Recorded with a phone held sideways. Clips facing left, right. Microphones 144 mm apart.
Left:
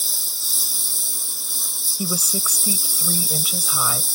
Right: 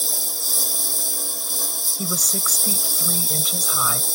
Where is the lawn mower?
60° right (ahead or behind).